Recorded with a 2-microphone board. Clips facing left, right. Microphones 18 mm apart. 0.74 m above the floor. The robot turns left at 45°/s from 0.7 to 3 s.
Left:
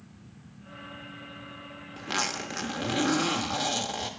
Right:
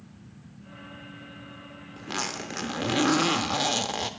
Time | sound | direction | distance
2.0 | a zipper | 20° left | 0.8 m